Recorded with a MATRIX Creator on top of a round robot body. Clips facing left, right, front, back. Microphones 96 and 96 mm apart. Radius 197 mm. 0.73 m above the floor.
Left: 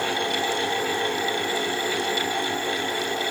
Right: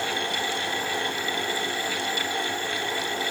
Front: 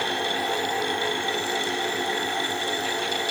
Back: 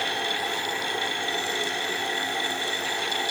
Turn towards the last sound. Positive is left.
No sound to turn to.